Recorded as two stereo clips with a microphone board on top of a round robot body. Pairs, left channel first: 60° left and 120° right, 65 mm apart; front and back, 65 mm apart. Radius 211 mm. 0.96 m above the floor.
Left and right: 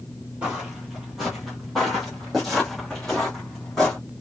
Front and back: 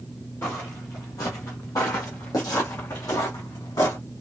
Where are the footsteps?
50° right, 1.0 m; by 4.0 s 25° right, 3.5 m.